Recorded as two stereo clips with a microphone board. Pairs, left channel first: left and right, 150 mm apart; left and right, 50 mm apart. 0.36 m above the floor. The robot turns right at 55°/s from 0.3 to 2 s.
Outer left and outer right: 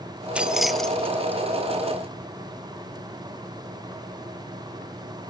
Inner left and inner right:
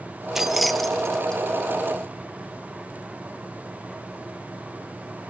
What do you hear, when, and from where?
0.3 s keys jangling: 5° right (ahead or behind), 0.7 m; by 1.4 s 15° left (ahead or behind), 0.7 m